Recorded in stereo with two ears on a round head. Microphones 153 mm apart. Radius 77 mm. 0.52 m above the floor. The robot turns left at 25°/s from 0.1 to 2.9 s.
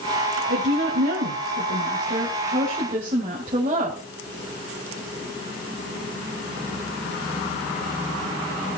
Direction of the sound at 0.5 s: 80° right.